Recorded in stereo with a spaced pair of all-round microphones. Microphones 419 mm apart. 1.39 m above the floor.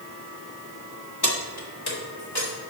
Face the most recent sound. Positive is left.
turn(degrees=70)  # may be behind; listen again after turning